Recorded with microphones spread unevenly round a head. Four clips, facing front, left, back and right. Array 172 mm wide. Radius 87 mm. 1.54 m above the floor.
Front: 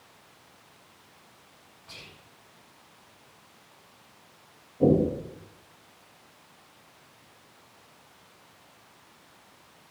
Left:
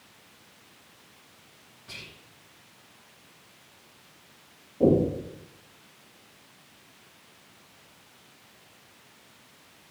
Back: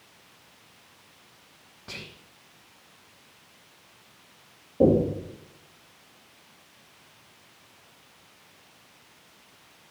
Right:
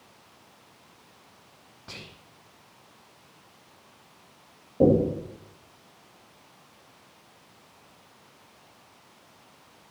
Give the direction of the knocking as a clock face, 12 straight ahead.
4 o'clock.